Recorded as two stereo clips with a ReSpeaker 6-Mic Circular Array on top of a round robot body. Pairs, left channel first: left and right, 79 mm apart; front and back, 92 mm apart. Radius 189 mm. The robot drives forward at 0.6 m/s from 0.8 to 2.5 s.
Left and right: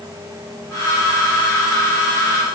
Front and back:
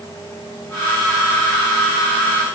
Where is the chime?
No chime in this recording.